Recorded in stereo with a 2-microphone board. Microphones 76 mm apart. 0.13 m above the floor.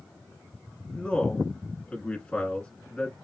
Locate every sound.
0.9 s a man speaking: 15° left (ahead or behind), 1.2 m